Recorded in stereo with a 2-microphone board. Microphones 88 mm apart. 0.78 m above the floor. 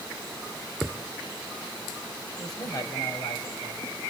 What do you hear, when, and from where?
0.8 s a thud: 10° left (ahead or behind), 1.9 m
2.4 s a man speaking: 45° left (ahead or behind), 4.5 m